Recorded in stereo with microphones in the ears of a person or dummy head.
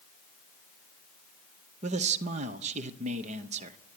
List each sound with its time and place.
1.8 s a man speaking: 40° right (ahead or behind), 0.9 m